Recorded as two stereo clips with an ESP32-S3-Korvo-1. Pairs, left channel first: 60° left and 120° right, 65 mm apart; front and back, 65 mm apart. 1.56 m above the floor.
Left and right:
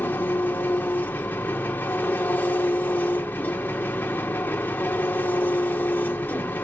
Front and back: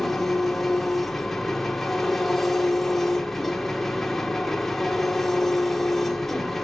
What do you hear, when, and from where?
0.0 s an engine running: 85° left, 1.3 m